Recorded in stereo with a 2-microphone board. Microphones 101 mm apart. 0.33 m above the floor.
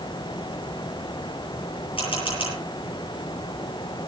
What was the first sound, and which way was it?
A camera shutter, 65° left (ahead or behind).